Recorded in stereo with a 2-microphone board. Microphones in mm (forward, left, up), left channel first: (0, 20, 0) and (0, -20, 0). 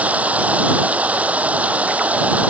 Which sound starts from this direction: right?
Running water, at 0.0 s.